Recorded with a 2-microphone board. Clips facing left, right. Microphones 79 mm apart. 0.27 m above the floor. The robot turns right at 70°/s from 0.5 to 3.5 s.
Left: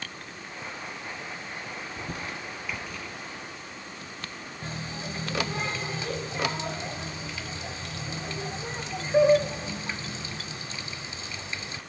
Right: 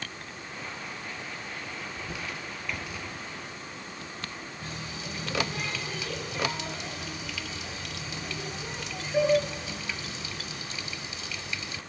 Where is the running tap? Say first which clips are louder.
Left 5 dB; 35° left (ahead or behind), 0.9 m.